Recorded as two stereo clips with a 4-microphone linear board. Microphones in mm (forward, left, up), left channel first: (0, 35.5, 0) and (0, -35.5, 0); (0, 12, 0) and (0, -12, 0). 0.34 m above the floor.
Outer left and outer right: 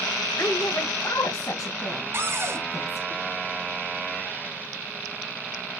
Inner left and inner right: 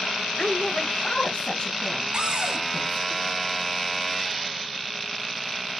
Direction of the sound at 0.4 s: 35° left (ahead or behind).